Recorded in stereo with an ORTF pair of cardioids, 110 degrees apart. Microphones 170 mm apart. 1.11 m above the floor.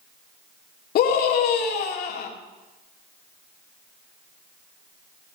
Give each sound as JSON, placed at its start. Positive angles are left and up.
{"t": 0.9, "sound": "a scream", "azimuth_deg": 70, "distance_m": 2.5}